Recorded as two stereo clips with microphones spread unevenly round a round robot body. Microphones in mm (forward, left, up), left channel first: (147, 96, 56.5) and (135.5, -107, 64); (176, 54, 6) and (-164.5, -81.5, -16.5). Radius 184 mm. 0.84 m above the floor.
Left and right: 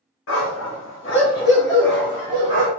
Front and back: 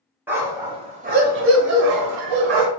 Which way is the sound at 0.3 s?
115° left.